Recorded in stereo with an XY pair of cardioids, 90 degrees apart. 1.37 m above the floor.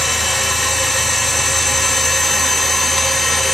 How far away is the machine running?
About 0.8 m.